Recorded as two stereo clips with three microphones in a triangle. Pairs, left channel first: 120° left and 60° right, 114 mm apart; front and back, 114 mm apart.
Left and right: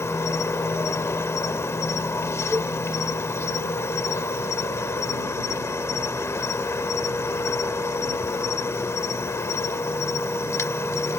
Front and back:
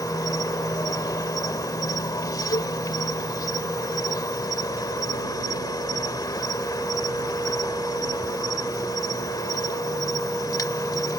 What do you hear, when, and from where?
0.0 s an insect: 55° left
2.5 s a cowbell: 5° left